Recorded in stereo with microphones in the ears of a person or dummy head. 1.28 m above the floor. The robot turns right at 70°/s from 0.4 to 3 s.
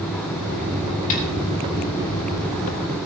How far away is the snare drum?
About 3 m.